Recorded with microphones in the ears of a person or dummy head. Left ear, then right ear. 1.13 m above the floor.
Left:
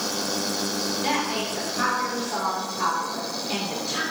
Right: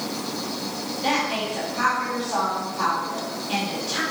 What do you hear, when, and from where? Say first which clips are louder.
1.0 s a woman speaking: right 4 dB; 5° left (ahead or behind), 3 m